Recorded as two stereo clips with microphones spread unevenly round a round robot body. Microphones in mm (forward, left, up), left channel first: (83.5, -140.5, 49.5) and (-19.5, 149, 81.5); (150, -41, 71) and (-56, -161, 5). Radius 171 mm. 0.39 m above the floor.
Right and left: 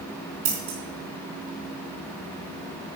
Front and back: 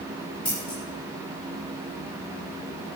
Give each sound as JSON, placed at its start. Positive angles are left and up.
{"t": 0.5, "sound": "scissors", "azimuth_deg": 110, "distance_m": 4.0}